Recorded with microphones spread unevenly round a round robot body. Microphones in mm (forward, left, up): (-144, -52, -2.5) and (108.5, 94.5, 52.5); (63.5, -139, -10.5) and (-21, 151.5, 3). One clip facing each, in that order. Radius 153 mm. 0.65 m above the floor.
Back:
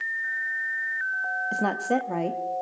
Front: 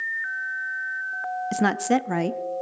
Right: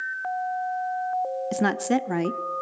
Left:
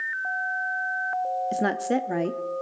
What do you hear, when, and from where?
1.5 s a woman speaking: 20° right, 0.8 m